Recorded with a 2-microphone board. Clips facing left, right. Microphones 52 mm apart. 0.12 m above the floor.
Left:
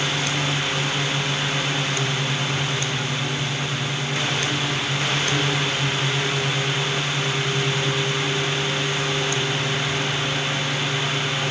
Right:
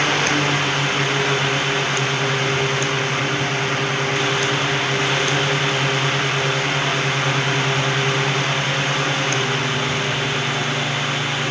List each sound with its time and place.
Only background noise.